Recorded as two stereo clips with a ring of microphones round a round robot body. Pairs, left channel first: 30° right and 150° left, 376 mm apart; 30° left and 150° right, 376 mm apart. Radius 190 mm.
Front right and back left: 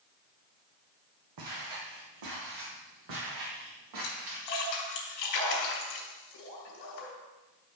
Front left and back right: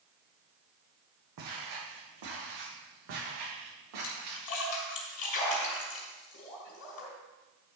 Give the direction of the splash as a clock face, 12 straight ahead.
1 o'clock.